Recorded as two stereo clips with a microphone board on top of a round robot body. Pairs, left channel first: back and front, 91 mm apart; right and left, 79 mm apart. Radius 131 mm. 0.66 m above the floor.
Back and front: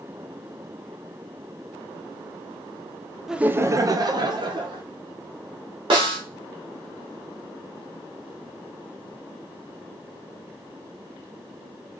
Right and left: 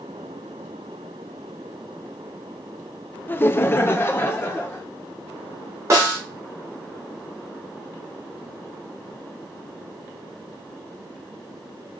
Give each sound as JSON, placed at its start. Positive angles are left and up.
{"t": 3.3, "sound": "laughter", "azimuth_deg": -80, "distance_m": 0.5}
{"t": 5.9, "sound": "a snare drum", "azimuth_deg": 35, "distance_m": 1.1}